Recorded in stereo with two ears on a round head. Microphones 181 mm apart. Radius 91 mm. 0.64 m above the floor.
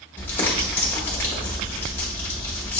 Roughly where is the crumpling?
Centre.